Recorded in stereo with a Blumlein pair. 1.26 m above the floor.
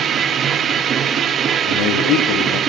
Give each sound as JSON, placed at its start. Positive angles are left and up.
{"t": 0.0, "sound": "a machine running", "azimuth_deg": -25, "distance_m": 1.5}
{"t": 1.7, "sound": "a man speaking", "azimuth_deg": 40, "distance_m": 2.5}